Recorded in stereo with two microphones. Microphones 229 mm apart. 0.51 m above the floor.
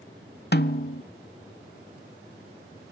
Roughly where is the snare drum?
Left.